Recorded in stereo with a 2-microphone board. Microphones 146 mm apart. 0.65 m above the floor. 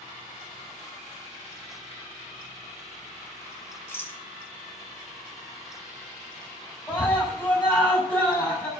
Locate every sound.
3.9 s a rattle: 15° left (ahead or behind), 2 m
6.9 s a scream: 15° left (ahead or behind), 6 m